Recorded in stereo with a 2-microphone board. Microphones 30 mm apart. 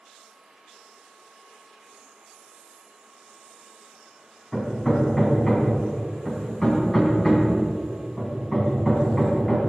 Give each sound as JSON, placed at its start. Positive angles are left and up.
{"t": 4.5, "sound": "hammering", "side_deg": 15, "distance_m": 3.0}